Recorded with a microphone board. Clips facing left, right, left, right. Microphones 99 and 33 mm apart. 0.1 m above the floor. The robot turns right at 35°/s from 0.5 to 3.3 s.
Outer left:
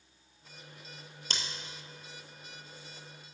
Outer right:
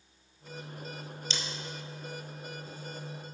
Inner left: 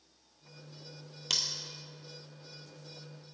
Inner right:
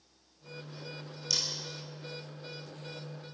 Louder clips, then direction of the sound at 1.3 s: Even, inner left 1 dB; 50° left (ahead or behind).